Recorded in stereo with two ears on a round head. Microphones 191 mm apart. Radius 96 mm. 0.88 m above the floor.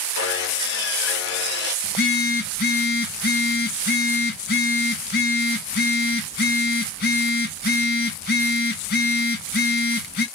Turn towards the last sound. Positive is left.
turn(degrees=50)  # may be behind; listen again after turning